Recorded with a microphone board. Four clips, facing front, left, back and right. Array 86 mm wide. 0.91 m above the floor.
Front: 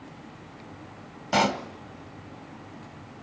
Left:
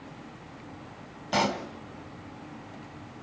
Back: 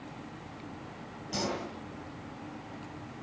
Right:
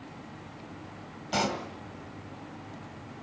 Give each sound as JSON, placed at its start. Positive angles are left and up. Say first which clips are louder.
{"t": 1.3, "sound": "a pop", "louder": "left 3 dB, front 10 dB", "azimuth_deg": 25, "distance_m": 1.9}